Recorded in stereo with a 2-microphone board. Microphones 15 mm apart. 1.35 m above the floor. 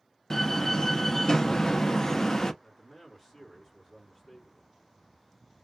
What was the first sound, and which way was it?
A door slam, 30° left (ahead or behind).